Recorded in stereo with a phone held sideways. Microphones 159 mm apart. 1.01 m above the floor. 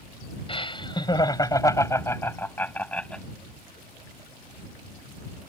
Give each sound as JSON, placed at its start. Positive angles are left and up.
{"t": 0.5, "sound": "laughter", "side_deg": 35}